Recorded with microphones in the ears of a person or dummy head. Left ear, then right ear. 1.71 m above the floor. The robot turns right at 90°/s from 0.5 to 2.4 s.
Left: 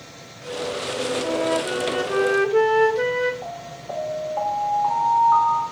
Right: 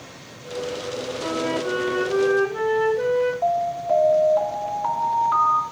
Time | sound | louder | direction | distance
1.2 | a flute | even | 35° right | 1.3 m
3.4 | an alarm | right 12 dB | 15° right (ahead or behind) | 1.8 m